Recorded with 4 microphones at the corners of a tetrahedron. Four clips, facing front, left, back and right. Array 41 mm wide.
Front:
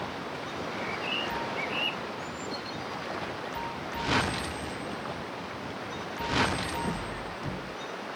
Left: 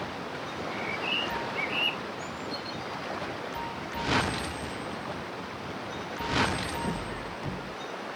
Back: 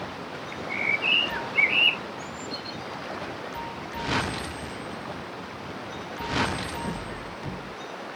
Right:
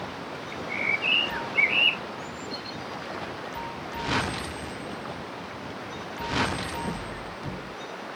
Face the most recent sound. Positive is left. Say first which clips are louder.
# right 8 dB, back 10 dB
turn(degrees=-140)